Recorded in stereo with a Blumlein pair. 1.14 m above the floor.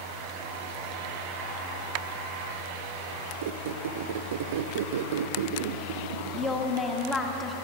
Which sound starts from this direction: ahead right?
A squeak, at 3.4 s.